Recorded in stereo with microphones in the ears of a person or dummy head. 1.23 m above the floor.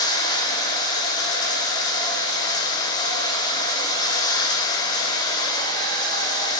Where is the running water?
20° left (ahead or behind), 5.5 m.